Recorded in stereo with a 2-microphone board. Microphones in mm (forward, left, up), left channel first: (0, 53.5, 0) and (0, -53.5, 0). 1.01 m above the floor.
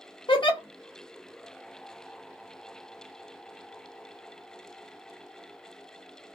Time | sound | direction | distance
0.3 | a giggle | 45° left (ahead or behind) | 0.7 m